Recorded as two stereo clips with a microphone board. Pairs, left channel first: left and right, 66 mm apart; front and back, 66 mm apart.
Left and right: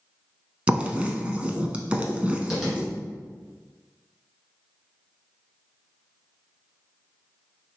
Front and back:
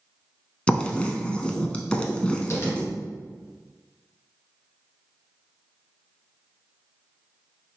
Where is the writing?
50° right, 0.6 m.